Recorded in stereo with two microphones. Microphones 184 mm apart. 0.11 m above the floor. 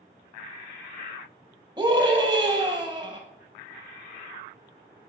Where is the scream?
25° right (ahead or behind), 2.5 m.